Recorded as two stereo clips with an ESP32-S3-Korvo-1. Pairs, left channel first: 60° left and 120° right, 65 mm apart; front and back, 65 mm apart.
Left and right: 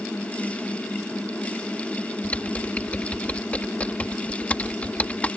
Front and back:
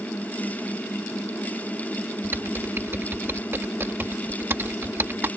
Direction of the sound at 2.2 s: 125° left.